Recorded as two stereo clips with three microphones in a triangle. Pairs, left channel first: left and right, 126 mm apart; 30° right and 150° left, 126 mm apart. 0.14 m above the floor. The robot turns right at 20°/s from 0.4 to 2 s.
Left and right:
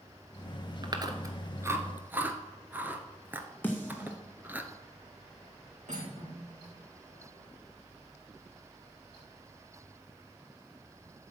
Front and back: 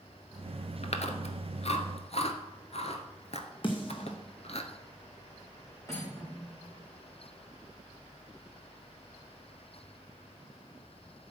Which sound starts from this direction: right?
Cutlery clinking, at 5.9 s.